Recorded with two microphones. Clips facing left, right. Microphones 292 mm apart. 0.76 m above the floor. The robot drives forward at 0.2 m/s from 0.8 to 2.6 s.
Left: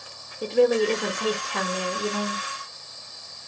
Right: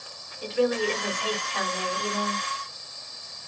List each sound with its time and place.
0.4 s a woman speaking: 60° left (ahead or behind), 0.8 m